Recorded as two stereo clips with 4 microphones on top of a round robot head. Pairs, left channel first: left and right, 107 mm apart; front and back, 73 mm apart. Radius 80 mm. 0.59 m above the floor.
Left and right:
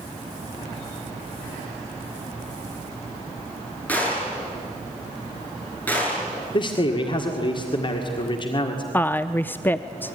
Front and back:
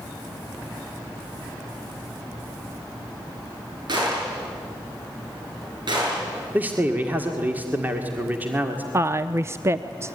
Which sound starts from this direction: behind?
A gunshot, at 3.9 s.